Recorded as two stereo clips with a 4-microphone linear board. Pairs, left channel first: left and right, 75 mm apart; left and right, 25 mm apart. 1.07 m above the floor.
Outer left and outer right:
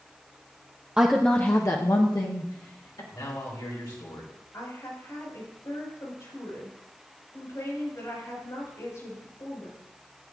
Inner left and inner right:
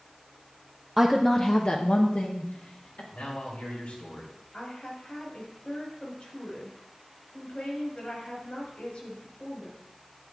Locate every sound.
1.0 s a woman speaking: 15° right (ahead or behind), 0.6 m; by 3.0 s 75° left (ahead or behind), 1.8 m
3.1 s a man speaking: 70° left (ahead or behind), 2.5 m
4.5 s a woman speaking: 50° left (ahead or behind), 5 m